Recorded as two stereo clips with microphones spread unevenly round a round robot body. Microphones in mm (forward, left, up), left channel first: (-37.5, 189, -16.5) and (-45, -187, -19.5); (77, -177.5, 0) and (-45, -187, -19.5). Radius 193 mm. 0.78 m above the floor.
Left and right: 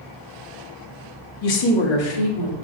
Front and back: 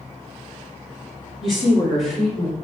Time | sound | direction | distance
1.4 | a woman speaking | 70° left | 1.5 m